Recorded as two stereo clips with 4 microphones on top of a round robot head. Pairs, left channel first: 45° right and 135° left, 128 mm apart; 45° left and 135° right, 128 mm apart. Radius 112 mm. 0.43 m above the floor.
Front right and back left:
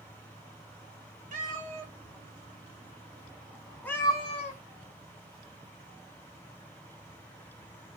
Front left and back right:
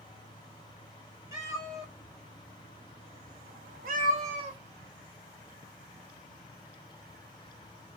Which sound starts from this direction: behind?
A cat meowing, at 1.3 s.